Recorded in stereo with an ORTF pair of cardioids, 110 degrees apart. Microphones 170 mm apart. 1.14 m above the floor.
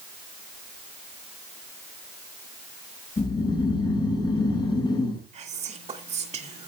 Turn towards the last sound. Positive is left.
turn(degrees=-40)